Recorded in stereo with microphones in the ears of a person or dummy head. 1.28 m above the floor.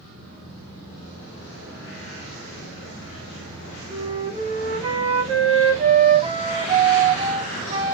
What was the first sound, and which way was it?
A flute, 35° right (ahead or behind).